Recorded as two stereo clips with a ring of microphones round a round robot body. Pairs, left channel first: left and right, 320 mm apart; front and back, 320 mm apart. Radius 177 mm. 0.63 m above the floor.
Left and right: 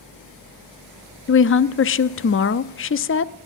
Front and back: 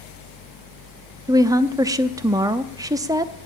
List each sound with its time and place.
1.3 s a woman speaking: 105° left, 0.6 m